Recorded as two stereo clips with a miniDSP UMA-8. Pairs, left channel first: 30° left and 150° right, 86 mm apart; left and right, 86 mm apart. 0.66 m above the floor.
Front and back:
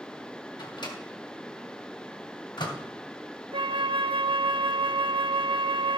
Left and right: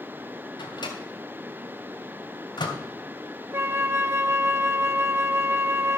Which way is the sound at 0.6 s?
60° left.